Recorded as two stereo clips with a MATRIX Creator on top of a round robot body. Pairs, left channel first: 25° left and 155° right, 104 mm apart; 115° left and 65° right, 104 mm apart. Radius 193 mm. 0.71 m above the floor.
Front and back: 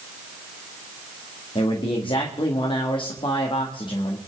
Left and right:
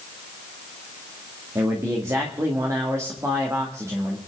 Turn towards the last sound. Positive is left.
turn(degrees=-10)